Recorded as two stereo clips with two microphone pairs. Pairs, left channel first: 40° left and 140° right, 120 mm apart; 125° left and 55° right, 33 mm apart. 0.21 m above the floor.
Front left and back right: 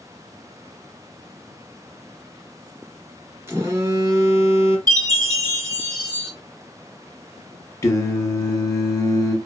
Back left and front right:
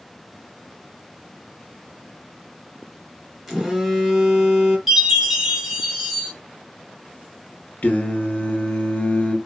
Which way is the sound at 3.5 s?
130° right.